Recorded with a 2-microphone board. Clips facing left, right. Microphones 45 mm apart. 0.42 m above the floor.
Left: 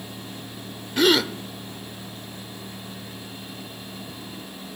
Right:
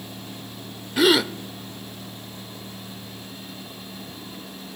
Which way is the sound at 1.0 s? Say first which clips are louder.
Right 1 dB; 5° right (ahead or behind).